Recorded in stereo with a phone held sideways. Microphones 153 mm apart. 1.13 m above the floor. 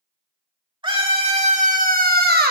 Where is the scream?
30° right (ahead or behind), 2.5 m; by 2.5 s 70° right (ahead or behind), 1.2 m.